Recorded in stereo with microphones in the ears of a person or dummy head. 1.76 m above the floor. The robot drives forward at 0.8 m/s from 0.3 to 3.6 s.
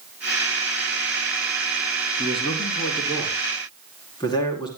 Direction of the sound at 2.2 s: 20° left (ahead or behind).